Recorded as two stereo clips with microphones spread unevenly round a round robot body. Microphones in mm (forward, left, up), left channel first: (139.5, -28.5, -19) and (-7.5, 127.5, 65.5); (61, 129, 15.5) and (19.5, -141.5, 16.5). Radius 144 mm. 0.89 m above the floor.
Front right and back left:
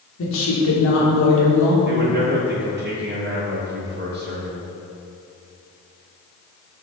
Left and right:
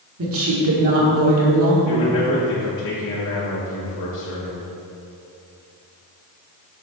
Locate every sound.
0.2 s a woman speaking: 60° right, 1.9 m
1.9 s a man speaking: 85° left, 1.1 m